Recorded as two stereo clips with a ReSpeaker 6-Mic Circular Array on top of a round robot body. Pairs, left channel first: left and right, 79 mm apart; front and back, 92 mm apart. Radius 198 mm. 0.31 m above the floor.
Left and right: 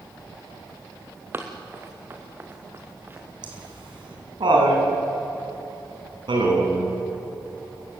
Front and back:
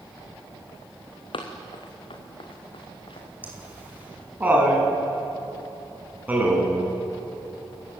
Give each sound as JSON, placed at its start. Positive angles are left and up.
{"t": 1.3, "sound": "running footsteps", "azimuth_deg": -30, "distance_m": 2.5}
{"t": 3.4, "sound": "laughter", "azimuth_deg": -110, "distance_m": 6.0}